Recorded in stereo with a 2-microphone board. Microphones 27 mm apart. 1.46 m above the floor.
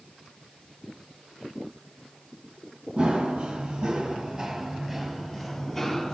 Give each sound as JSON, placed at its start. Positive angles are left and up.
{"t": 3.0, "sound": "running footsteps", "side_deg": -40, "distance_m": 2.5}